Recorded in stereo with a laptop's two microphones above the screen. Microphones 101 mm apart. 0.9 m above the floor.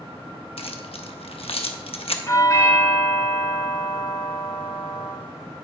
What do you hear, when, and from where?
0.6 s keys jangling: 70° left (ahead or behind), 0.7 m
2.3 s a doorbell: 30° left (ahead or behind), 3 m